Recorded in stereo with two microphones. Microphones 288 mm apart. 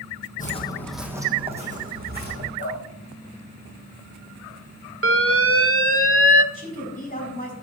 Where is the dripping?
30° left (ahead or behind), 3 m.